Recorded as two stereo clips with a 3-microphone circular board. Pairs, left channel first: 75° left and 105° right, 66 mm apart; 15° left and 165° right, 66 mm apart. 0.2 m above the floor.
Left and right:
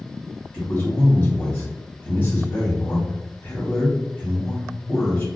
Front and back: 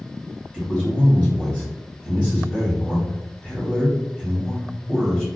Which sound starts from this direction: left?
A man speaking, at 0.5 s.